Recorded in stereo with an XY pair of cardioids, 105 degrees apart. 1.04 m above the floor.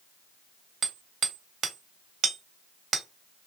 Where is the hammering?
60° right, 1.4 m.